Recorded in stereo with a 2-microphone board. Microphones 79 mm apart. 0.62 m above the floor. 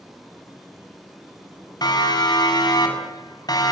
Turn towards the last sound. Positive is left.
turn(degrees=55)  # may be behind; listen again after turning